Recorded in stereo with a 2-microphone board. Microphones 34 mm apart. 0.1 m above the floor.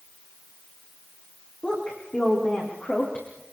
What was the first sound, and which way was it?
A woman speaking, 30° left (ahead or behind).